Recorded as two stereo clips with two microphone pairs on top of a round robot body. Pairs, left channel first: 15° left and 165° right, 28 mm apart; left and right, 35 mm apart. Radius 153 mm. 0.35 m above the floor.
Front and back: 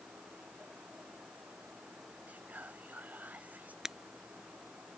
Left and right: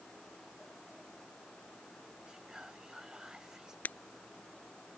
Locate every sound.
2.3 s whispering: 165° right
3.9 s breaking glass: 125° left